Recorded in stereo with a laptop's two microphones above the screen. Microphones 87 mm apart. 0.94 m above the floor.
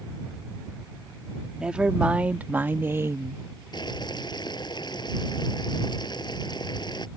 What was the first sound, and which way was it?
A woman speaking, 10° right (ahead or behind).